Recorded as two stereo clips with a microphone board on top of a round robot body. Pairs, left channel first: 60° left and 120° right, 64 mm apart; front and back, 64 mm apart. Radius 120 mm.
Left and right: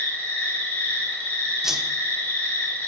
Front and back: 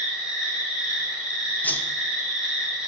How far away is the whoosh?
About 0.7 m.